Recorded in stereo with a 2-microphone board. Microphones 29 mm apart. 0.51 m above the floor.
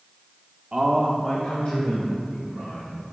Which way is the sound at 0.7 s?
35° right (ahead or behind).